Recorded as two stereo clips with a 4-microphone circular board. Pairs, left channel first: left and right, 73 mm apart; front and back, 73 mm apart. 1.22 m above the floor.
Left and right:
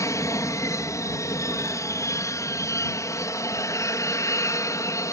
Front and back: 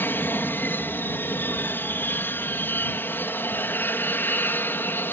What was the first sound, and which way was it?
An aircraft, 55° left.